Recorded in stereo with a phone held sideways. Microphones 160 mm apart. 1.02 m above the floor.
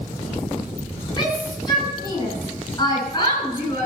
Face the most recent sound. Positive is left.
turn(degrees=25)  # may be behind; listen again after turning